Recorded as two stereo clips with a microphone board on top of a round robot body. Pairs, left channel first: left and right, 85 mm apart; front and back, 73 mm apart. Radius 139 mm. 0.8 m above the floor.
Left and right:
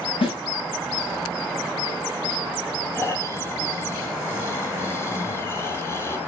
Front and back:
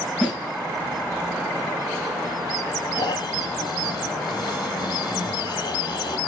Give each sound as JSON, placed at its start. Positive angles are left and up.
{"t": 0.2, "sound": "a snare drum", "azimuth_deg": 85, "distance_m": 6.0}
{"t": 3.0, "sound": "snoring", "azimuth_deg": 30, "distance_m": 1.0}